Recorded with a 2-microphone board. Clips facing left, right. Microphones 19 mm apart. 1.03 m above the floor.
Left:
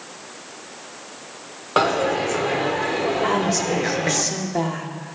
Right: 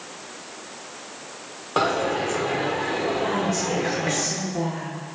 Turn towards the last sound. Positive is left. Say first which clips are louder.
# left 3 dB
turn(degrees=45)  # may be behind; listen again after turning